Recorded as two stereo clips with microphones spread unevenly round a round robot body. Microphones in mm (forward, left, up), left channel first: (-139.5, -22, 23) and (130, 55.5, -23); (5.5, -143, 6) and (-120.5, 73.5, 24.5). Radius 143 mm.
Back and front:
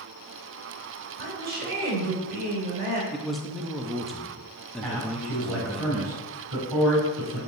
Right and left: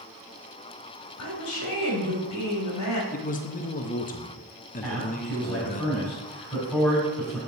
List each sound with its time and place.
1.2 s a woman speaking: 40° right, 2.5 m
3.1 s a man speaking: 60° right, 0.7 m
4.8 s a man speaking: 25° left, 4 m